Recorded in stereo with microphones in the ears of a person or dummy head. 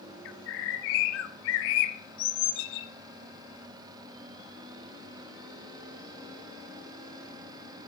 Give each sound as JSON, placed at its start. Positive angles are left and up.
{"t": 0.2, "sound": "a bird", "side_deg": 80, "distance_m": 0.9}